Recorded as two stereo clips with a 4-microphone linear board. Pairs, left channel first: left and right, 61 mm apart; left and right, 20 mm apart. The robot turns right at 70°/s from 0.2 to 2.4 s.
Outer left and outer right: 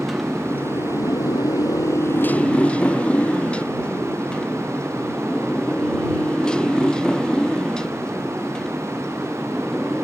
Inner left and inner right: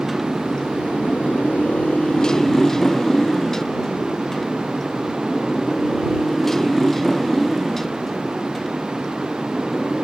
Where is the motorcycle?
Centre (ahead or behind); by 10.0 s 10° left (ahead or behind).